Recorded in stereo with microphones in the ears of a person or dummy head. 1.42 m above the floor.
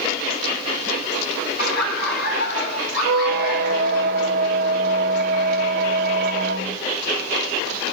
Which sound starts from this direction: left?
Laughter, at 1.6 s.